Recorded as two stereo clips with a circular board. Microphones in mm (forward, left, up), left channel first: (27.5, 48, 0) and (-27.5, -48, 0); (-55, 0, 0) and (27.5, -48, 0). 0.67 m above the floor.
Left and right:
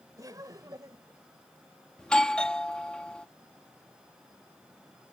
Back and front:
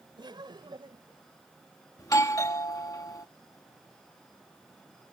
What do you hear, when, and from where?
0.2 s laughter: 65° right; by 1.2 s 60° right
2.0 s a doorbell: 135° left